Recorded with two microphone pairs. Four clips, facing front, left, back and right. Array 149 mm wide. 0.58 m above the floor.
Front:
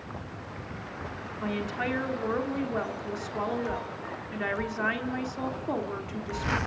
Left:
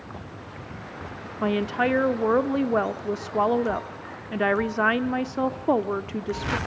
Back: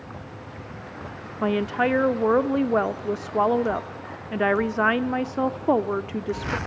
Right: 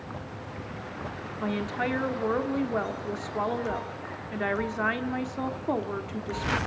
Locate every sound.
1.4 s a woman speaking: 155° left, 1.2 m